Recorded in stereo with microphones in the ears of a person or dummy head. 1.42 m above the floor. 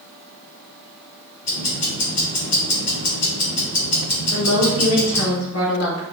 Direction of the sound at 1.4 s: 85° left.